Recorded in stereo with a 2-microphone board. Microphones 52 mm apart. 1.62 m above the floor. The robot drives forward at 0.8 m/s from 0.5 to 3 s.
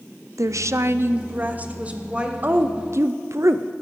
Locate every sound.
0.4 s a woman speaking: 85° right, 0.6 m; by 2.3 s 20° right (ahead or behind), 1.6 m
2.4 s a woman speaking: 40° right (ahead or behind), 0.9 m; by 3.7 s 65° right (ahead or behind), 0.6 m